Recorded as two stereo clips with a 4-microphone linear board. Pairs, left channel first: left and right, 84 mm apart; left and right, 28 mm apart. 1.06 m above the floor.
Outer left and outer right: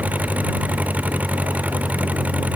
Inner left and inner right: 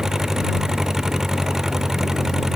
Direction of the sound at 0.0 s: 20° right (ahead or behind).